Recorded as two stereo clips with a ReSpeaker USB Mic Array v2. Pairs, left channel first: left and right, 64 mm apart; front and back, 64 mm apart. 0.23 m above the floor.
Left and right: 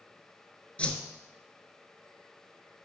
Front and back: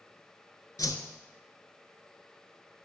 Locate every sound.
0.8 s a whoosh: 20° left, 0.6 m